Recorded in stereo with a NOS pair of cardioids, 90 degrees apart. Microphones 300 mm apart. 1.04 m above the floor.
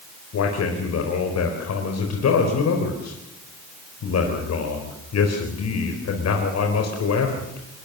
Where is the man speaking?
60° left, 4 m.